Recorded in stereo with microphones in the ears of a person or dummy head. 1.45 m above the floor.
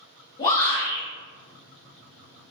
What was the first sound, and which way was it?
A shout, 20° left (ahead or behind).